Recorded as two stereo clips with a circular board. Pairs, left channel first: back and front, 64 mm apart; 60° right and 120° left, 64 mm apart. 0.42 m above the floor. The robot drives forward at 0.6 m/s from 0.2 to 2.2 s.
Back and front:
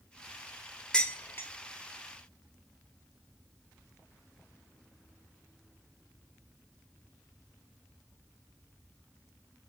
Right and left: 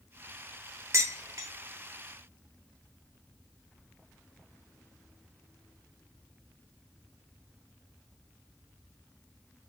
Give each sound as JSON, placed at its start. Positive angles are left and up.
{"t": 0.9, "sound": "dishes clattering", "azimuth_deg": 105, "distance_m": 0.6}